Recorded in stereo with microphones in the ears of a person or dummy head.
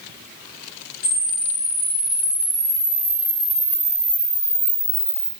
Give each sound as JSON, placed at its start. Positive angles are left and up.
{"t": 1.0, "sound": "a camera shutter", "side_deg": 45, "distance_m": 0.9}